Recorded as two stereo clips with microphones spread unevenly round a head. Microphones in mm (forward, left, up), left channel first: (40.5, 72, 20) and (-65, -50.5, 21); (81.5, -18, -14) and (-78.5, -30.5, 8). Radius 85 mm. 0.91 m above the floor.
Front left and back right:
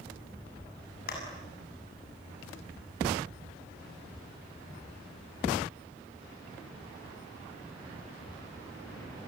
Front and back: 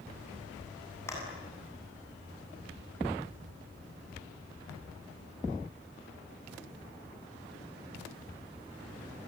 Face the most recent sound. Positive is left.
turn(degrees=80)